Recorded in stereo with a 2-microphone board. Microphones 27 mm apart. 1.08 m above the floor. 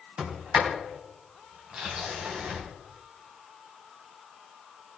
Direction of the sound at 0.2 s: 40° right (ahead or behind).